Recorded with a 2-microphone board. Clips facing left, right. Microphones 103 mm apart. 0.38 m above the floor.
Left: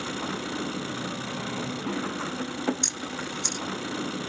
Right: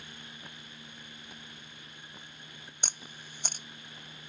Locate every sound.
0.0 s an engine running: 90° left
2.8 s a camera shutter: 50° right (ahead or behind)